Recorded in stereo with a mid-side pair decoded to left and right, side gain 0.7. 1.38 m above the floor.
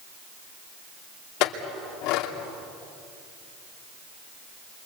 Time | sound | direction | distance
1.4 | a clink | 65° left | 2.5 m